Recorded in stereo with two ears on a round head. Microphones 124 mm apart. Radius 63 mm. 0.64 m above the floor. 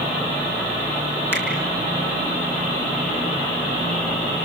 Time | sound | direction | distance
1.3 | a finger snap | 20° left (ahead or behind) | 5 m